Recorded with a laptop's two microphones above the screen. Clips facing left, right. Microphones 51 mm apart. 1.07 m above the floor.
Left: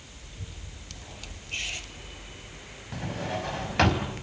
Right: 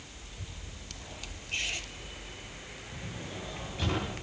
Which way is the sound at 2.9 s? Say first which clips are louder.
Left 11 dB; 70° left (ahead or behind).